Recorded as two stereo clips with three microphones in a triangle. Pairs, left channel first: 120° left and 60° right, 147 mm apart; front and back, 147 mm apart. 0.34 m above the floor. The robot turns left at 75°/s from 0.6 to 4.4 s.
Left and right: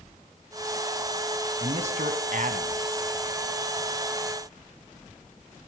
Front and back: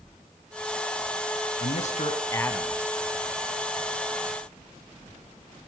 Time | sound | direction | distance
1.6 | a man speaking | 10° right | 2.5 m